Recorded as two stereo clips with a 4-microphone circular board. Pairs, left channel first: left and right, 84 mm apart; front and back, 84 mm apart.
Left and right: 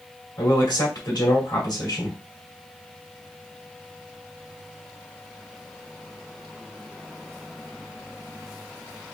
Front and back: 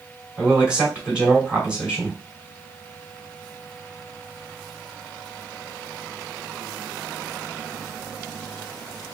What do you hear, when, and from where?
0.4 s a man speaking: 105° left, 2.5 m